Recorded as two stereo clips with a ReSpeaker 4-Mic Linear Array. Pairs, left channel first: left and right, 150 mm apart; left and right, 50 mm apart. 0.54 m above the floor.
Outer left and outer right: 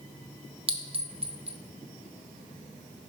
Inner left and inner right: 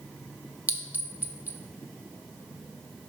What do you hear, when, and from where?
0.7 s a clink: 40° right (ahead or behind), 0.6 m